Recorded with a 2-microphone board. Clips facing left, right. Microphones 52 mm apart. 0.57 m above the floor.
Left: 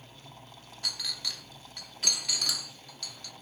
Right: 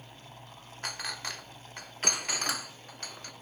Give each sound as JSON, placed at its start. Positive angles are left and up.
{"t": 0.8, "sound": "a clink", "side_deg": -40, "distance_m": 0.7}